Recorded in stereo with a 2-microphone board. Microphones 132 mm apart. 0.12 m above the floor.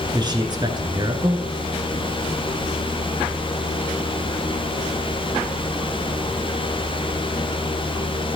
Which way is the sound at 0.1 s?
35° right (ahead or behind).